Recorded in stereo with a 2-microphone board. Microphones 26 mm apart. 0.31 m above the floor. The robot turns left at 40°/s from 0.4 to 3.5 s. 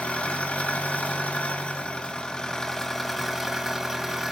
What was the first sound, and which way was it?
An engine running, 115° left.